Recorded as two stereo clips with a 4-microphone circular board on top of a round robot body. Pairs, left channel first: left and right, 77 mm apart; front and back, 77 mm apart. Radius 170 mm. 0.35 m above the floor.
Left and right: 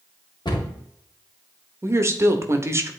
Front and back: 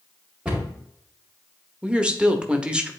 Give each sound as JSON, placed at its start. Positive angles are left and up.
{"t": 0.5, "sound": "a cupboard door", "azimuth_deg": 105, "distance_m": 2.5}
{"t": 1.8, "sound": "a woman speaking", "azimuth_deg": -110, "distance_m": 1.1}